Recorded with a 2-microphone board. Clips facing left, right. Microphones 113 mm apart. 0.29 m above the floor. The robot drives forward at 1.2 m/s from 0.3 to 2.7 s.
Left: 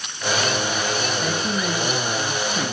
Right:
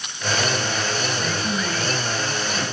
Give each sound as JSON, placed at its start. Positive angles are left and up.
{"t": 1.2, "sound": "a woman speaking", "side_deg": 25, "distance_m": 6.5}